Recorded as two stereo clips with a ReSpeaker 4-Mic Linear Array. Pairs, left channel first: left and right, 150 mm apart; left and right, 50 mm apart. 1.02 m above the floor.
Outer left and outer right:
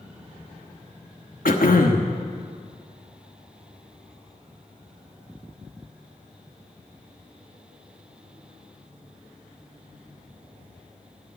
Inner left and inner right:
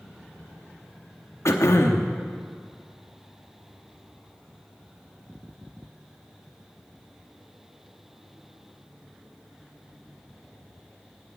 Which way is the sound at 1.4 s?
70° left (ahead or behind).